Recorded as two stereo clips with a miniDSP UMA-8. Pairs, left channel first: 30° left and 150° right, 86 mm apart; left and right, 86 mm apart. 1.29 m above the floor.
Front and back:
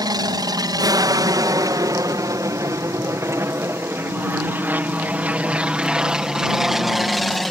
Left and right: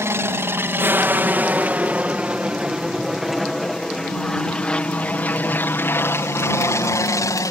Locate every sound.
0.0 s an aircraft: 140° right; by 7.5 s 115° left